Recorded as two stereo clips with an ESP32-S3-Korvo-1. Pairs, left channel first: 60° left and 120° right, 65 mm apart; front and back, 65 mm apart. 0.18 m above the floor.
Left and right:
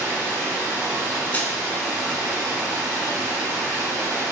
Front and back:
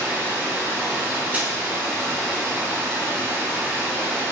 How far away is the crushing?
About 0.6 m.